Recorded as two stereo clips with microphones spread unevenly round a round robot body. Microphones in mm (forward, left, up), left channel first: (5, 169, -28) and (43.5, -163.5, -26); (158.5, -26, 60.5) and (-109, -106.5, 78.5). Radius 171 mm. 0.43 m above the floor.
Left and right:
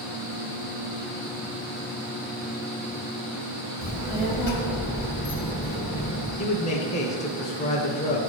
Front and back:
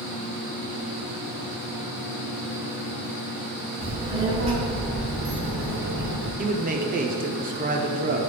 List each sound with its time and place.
3.8 s a child speaking: 110° left, 1.4 m; by 6.3 s 160° left, 1.7 m
6.4 s a man speaking: 155° left, 0.8 m